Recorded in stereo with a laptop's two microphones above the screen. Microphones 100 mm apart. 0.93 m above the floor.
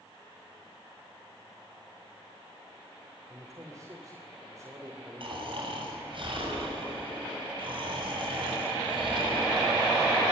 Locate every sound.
3.3 s a man speaking: 35° right (ahead or behind), 2.5 m
5.2 s snoring: 55° right (ahead or behind), 6.5 m